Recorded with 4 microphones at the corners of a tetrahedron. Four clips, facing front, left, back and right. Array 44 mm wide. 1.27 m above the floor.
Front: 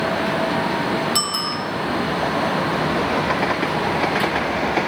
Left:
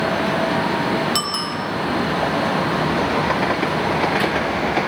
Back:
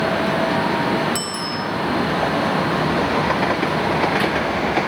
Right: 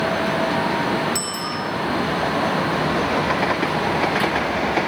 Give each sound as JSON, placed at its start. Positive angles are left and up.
{"t": 1.1, "sound": "a bicycle bell", "azimuth_deg": 60, "distance_m": 7.0}